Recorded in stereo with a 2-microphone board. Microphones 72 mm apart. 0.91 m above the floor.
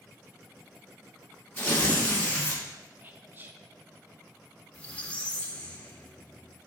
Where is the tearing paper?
20° left (ahead or behind), 1.5 m.